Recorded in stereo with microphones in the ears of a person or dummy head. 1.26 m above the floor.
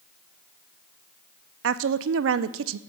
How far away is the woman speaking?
About 0.5 m.